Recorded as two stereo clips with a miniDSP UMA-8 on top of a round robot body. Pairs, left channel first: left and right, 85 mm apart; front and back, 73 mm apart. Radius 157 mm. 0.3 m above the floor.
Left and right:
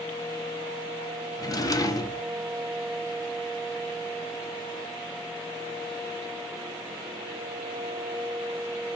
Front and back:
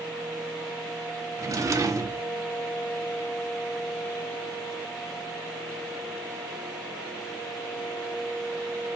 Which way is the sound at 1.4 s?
135° left.